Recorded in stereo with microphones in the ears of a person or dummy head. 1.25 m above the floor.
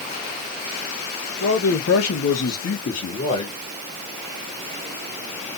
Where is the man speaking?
80° left, 1.5 m; by 3.5 s 30° left (ahead or behind), 1.4 m.